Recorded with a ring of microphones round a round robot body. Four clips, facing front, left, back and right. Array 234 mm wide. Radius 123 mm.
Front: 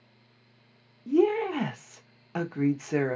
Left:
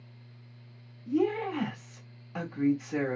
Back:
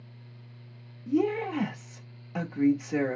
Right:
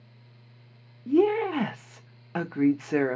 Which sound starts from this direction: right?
A woman speaking, at 1.1 s.